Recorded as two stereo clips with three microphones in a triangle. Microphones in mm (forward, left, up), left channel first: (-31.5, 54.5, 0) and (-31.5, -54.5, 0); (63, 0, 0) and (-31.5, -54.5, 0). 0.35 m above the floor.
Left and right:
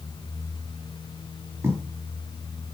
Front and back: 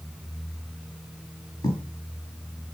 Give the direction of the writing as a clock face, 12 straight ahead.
1 o'clock.